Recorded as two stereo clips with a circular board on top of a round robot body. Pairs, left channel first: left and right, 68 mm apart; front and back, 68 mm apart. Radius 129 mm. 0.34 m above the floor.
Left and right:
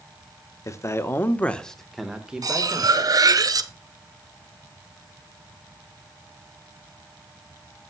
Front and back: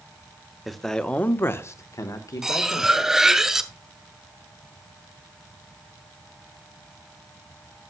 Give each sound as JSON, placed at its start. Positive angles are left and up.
{"t": 0.7, "sound": "a man speaking", "azimuth_deg": 90, "distance_m": 1.2}
{"t": 2.4, "sound": "cutlery clinking", "azimuth_deg": -100, "distance_m": 1.1}